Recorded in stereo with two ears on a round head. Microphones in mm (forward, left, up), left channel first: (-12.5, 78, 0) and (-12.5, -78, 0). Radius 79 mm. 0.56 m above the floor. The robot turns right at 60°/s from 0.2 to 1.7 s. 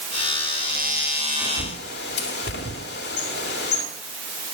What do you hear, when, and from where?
1.4 s a bird: 55° left (ahead or behind), 1.5 m; by 3.8 s 65° left (ahead or behind), 1.5 m